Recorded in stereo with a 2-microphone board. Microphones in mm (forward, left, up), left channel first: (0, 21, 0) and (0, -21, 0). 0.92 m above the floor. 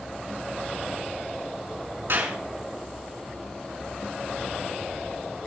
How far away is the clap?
About 7 m.